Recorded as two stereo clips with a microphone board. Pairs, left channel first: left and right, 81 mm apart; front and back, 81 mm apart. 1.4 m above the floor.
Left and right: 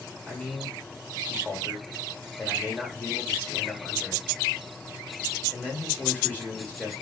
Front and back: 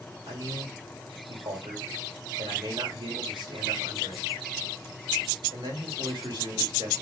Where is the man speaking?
155° left, 3 m.